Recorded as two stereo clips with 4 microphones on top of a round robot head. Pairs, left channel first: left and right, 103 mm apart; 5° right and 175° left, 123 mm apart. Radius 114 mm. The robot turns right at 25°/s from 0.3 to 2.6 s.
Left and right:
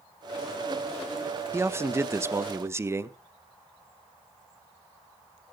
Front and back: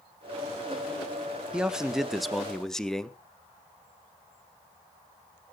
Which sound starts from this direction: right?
A man speaking, at 1.5 s.